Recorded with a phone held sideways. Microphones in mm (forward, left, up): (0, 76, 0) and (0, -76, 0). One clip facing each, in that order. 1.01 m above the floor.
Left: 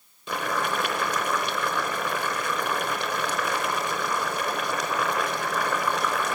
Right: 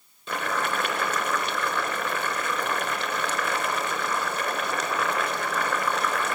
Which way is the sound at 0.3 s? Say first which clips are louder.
Left 1 dB; 10° left (ahead or behind).